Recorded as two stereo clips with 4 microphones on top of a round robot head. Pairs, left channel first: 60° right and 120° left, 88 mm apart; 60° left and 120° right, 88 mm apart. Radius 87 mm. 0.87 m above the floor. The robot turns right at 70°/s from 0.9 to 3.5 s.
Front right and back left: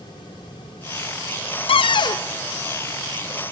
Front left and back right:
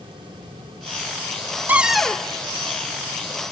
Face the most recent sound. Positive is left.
turn(degrees=75)